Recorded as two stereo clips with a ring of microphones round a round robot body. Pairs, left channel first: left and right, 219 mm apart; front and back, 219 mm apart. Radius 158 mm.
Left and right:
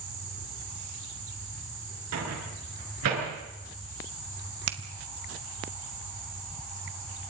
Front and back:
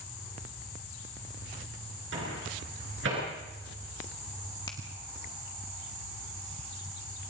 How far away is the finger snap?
About 1.5 m.